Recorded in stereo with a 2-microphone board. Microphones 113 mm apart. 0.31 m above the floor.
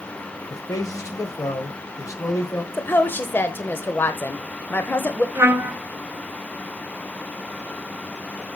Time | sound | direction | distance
0.5 | a man speaking | 30° left (ahead or behind) | 1.3 m
2.7 | a woman speaking | 20° left (ahead or behind) | 0.9 m
5.3 | a trumpet | 20° right (ahead or behind) | 1.5 m